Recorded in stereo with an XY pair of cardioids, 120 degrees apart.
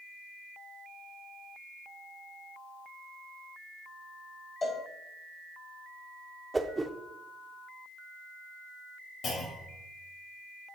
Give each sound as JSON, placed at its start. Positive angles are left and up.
{"t": 4.6, "sound": "a cowbell", "azimuth_deg": 30, "distance_m": 1.4}
{"t": 6.5, "sound": "a whoosh", "azimuth_deg": -15, "distance_m": 0.6}
{"t": 9.2, "sound": "a clunk", "azimuth_deg": 55, "distance_m": 3.0}